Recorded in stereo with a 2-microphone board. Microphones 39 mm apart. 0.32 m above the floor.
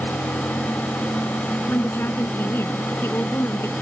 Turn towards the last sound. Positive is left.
turn(degrees=70)  # may be behind; listen again after turning